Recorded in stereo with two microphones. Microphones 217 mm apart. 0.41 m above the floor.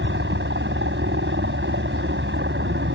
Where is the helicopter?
60° right (ahead or behind).